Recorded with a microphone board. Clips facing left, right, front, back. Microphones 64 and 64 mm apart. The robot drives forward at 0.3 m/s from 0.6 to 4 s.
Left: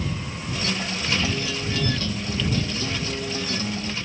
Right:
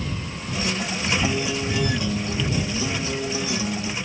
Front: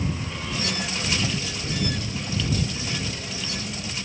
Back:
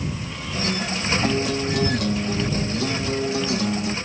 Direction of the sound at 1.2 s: 155° right.